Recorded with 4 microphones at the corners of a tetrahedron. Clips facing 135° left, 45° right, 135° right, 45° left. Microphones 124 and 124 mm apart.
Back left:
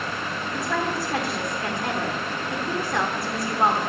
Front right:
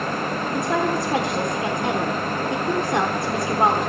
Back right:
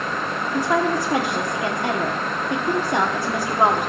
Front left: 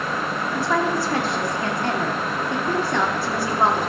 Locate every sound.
0.5 s a woman speaking: 75° right, 1.0 m